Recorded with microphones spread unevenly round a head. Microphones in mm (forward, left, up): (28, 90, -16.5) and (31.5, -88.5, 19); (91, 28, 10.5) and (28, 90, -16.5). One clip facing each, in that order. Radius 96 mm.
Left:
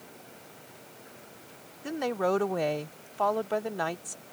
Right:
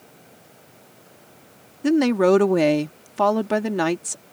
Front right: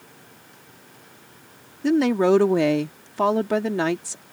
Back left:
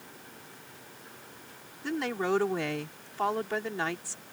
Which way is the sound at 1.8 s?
75° right.